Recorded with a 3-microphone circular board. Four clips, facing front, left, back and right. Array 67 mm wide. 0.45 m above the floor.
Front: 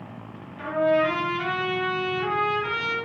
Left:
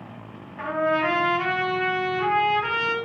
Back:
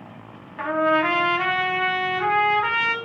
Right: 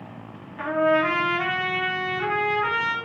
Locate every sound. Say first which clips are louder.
0.6 s a trumpet: right 2 dB, back 1 dB; 175° left, 2.5 m